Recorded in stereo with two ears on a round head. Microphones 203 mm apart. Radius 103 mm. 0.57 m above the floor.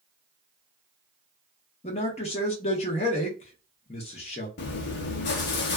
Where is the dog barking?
I don't hear a dog barking.